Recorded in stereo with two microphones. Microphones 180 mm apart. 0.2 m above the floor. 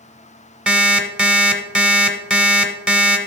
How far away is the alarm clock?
About 0.9 m.